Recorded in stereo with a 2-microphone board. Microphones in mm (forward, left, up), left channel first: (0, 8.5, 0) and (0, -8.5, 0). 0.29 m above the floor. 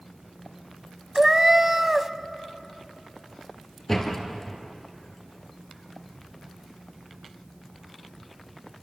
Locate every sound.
1.1 s a cat meowing: 30° right (ahead or behind), 0.7 m
3.9 s a door slam: 25° left (ahead or behind), 3 m